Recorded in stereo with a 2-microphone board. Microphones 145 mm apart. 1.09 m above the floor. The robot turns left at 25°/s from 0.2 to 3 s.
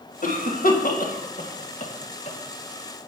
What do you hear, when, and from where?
0.2 s a cough: 70° left (ahead or behind), 1.4 m; by 2.4 s 50° left (ahead or behind), 1.4 m